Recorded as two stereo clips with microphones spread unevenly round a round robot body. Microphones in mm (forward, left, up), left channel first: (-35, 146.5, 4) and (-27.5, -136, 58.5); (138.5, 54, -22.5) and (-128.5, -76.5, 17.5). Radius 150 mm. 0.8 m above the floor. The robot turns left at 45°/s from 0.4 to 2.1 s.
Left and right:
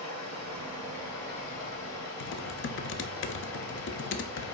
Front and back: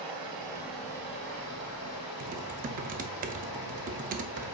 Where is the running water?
130° left, 2.5 m; by 4.5 s 55° left, 2.5 m.